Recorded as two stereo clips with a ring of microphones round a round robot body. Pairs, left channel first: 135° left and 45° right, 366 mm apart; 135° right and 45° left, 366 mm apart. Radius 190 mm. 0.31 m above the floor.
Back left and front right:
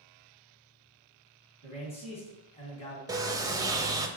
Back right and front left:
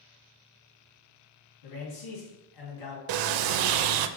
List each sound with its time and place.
1.6 s a man speaking: 150° right, 2.5 m
3.1 s a sliding door: 35° left, 0.5 m